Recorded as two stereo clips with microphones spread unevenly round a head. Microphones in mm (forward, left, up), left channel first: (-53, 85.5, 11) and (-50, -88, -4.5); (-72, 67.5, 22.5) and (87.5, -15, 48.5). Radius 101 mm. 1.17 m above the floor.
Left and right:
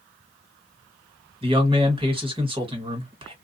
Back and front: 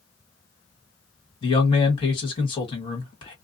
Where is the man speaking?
145° right, 1.5 m.